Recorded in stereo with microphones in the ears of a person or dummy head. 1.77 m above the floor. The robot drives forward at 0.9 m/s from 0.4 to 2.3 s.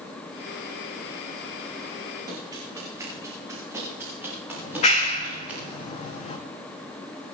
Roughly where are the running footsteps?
Centre.